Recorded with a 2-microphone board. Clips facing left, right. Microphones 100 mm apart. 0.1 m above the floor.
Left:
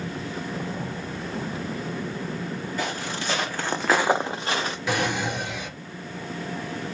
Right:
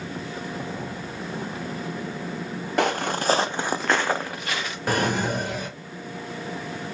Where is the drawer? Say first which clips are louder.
Right 3 dB; 45° right (ahead or behind), 1.0 m.